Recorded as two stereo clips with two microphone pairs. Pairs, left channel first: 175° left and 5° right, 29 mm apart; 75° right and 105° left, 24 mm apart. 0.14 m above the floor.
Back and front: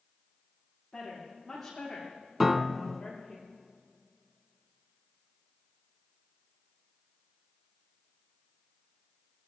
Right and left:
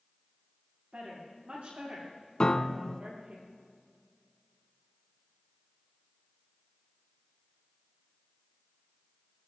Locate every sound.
0.9 s a woman speaking: 90° left, 8.5 m; by 3.4 s 100° left, 9.5 m
2.4 s a piano: 80° right, 0.5 m